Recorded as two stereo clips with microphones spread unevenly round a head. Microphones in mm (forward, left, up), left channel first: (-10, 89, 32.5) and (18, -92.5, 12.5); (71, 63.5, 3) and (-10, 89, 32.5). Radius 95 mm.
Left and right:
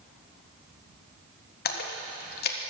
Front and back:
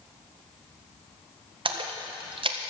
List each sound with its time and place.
1.6 s a splash: 140° left, 1.5 m